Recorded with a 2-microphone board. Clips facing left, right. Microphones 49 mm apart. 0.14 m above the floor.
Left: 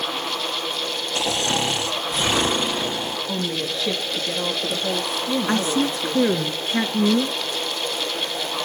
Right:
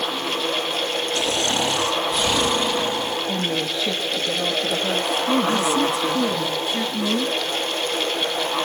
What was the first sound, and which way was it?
Snoring, 25° left (ahead or behind).